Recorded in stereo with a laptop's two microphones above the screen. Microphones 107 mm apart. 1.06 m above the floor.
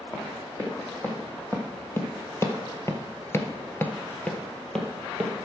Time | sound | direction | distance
0.1 | running footsteps | 20° left (ahead or behind) | 3.5 m